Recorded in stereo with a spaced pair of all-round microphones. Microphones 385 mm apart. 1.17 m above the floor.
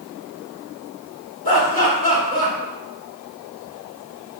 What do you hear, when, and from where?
1.4 s laughter: 65° left (ahead or behind), 3.5 m